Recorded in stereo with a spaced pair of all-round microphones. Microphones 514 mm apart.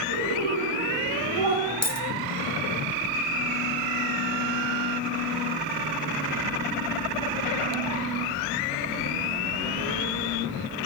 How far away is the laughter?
About 6 m.